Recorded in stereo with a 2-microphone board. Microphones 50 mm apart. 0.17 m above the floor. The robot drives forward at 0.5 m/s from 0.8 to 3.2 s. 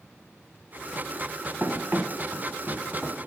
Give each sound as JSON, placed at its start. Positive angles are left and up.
{"t": 1.6, "sound": "running footsteps", "side_deg": -40, "distance_m": 1.4}